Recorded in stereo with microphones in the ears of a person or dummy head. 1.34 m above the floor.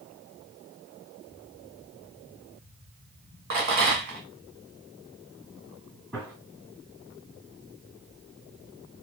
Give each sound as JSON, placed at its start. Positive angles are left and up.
{"t": 3.5, "sound": "a rattle", "side_deg": -45, "distance_m": 1.4}
{"t": 6.1, "sound": "a gunshot", "side_deg": 5, "distance_m": 2.0}